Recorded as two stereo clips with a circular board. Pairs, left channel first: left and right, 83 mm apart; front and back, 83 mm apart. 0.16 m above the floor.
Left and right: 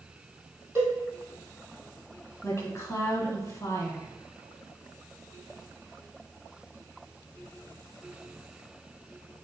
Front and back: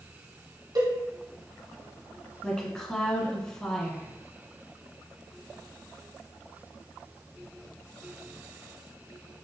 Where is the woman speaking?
75° left, 1.5 m.